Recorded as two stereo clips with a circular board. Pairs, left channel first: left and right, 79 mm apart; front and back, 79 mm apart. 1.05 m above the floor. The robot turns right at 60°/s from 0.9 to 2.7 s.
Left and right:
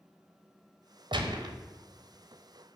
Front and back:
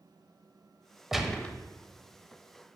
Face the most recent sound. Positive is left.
turn(degrees=0)